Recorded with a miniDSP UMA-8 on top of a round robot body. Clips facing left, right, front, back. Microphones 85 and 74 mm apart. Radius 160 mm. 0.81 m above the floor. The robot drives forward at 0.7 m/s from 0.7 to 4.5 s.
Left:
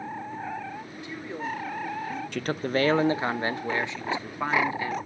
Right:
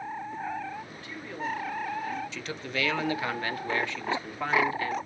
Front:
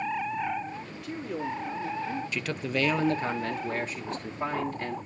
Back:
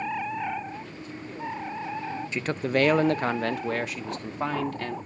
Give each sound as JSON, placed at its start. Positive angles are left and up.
{"t": 0.9, "sound": "a man speaking", "azimuth_deg": 15, "distance_m": 3.0}
{"t": 2.3, "sound": "a man speaking", "azimuth_deg": 115, "distance_m": 0.7}